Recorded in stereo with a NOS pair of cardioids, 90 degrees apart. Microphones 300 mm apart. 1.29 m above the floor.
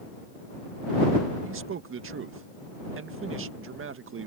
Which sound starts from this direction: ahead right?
A man speaking, at 1.4 s.